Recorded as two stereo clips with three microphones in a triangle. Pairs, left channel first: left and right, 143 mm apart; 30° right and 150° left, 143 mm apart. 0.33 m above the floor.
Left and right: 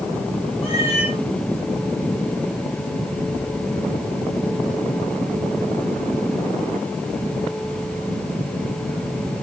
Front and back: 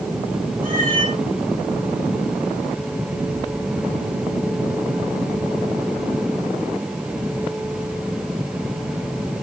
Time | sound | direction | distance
0.6 | a cat meowing | 135° left | 8 m